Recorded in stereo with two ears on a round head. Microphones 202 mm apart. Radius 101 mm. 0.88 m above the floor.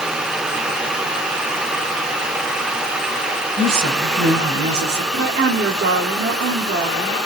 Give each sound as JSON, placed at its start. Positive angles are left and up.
{"t": 3.6, "sound": "a woman speaking", "side_deg": -75, "distance_m": 4.5}
{"t": 5.1, "sound": "a woman speaking", "side_deg": -50, "distance_m": 3.0}